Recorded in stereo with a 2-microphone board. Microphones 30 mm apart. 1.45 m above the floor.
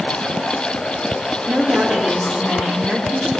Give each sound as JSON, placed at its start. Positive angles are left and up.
{"t": 1.5, "sound": "a woman speaking", "side_deg": -80, "distance_m": 2.5}